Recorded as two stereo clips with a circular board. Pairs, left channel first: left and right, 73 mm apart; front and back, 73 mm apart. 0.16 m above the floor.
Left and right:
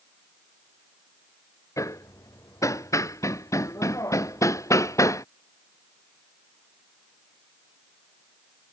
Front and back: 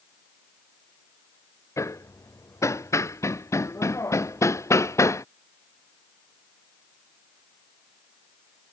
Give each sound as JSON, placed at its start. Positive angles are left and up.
{"t": 1.8, "sound": "hammering", "azimuth_deg": 45}